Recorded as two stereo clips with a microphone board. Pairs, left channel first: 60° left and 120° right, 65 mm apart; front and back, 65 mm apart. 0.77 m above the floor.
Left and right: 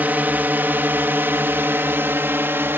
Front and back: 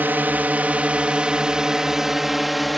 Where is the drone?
155° right; by 2.8 s 90° right.